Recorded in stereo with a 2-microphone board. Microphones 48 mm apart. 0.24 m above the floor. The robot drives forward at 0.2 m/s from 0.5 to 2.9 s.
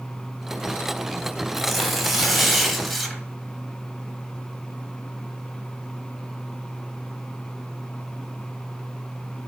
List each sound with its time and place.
1.5 s tearing paper: centre (ahead or behind), 1.0 m